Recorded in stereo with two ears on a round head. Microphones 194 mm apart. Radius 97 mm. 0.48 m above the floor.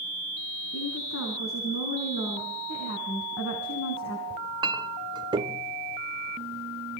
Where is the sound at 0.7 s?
65° left (ahead or behind), 5.5 m.